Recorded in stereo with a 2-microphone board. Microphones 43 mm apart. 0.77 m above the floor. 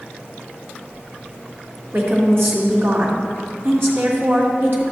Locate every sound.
1.9 s a woman speaking: 60° right (ahead or behind), 2 m